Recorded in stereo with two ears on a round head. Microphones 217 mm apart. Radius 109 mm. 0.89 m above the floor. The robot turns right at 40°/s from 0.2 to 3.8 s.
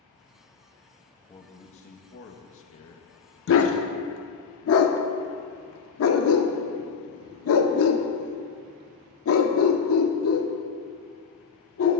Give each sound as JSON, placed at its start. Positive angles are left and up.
{"t": 1.3, "sound": "a man speaking", "azimuth_deg": 10, "distance_m": 0.7}
{"t": 3.5, "sound": "a dog barking", "side_deg": 50, "distance_m": 0.6}